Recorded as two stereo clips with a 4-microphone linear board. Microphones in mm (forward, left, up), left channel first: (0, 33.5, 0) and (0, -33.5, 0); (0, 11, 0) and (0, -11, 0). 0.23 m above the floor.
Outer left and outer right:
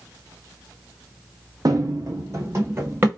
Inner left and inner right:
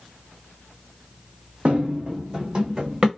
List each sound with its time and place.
1.6 s running footsteps: 65° right (ahead or behind), 0.6 m; by 3.1 s 25° right (ahead or behind), 1.3 m